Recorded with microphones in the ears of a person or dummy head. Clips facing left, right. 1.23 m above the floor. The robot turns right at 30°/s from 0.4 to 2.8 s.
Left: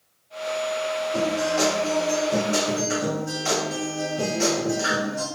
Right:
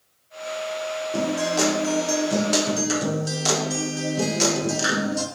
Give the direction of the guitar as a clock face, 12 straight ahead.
4 o'clock.